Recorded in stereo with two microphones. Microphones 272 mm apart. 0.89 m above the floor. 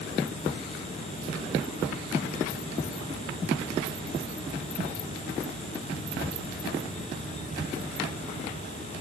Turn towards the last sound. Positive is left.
No sound to turn to.